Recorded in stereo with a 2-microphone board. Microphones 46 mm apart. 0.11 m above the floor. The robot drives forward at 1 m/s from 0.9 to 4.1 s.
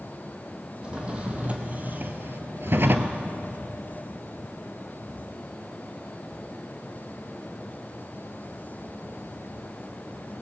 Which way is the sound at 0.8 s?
25° right (ahead or behind).